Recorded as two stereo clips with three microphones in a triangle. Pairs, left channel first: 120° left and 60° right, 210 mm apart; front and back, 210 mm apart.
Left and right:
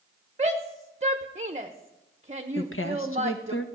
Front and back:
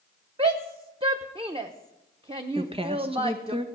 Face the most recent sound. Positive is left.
turn(degrees=120)